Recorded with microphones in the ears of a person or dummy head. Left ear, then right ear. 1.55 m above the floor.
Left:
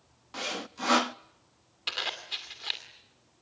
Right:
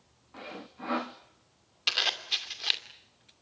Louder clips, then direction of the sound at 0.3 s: Left 9 dB; 75° left (ahead or behind).